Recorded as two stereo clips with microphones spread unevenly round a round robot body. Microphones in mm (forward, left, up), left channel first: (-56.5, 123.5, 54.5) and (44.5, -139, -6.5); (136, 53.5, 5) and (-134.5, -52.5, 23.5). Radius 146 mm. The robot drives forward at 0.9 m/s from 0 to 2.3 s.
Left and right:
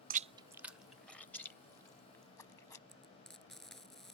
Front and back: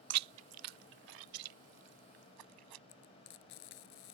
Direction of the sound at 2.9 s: 25° left.